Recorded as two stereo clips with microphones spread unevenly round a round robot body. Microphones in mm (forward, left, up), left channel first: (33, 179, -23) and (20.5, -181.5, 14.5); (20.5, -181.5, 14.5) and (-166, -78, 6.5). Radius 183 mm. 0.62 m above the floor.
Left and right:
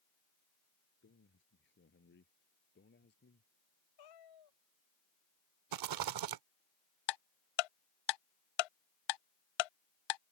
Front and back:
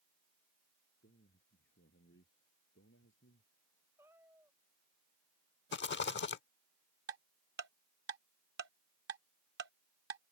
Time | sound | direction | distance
1.0 | a man speaking | 30° left | ?
4.0 | a cat meowing | 65° left | ?
5.7 | a rattle | 65° right | ?
7.1 | ticking | 95° left | ?